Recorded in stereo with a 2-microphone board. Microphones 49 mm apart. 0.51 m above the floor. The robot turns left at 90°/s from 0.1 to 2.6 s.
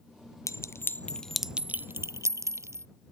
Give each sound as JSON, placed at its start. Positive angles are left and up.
{"t": 0.5, "sound": "a clink", "side_deg": 80}